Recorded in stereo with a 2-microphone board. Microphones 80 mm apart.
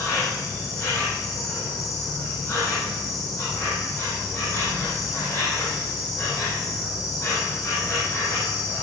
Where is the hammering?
I don't hear hammering.